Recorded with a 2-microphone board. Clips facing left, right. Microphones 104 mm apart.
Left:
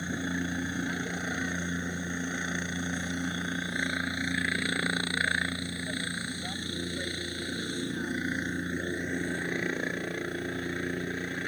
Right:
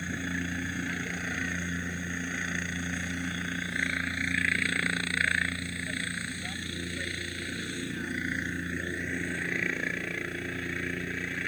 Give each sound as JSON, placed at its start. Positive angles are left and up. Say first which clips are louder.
{"t": 0.0, "sound": "a helicopter", "louder": "left 2 dB", "side_deg": 20}